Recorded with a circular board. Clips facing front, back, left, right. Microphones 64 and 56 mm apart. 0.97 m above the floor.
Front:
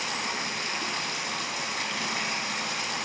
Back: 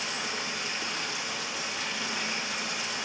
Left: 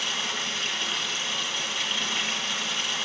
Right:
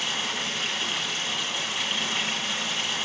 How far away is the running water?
About 2.5 m.